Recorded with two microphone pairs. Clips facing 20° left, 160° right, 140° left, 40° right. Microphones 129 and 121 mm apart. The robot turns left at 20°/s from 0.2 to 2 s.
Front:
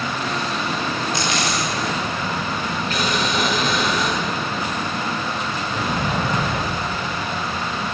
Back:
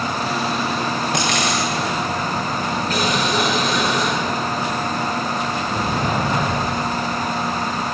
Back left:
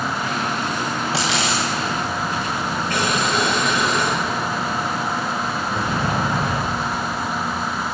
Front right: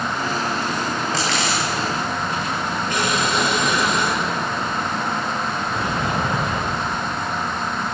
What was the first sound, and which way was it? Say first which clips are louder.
A dropped coin: back 2 dB, back left 1 dB; 140° right.